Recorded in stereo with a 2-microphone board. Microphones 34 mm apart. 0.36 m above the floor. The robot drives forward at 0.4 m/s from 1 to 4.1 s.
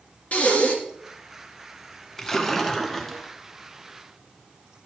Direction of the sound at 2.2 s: 15° left (ahead or behind).